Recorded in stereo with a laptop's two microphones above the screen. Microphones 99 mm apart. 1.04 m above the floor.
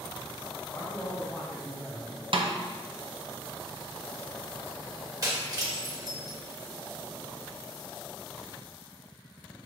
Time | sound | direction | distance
0.7 | a man speaking | 5° left (ahead or behind) | 1.1 m
2.3 | a snare drum | 60° right (ahead or behind) | 0.6 m
5.2 | breaking glass | 35° right (ahead or behind) | 1.5 m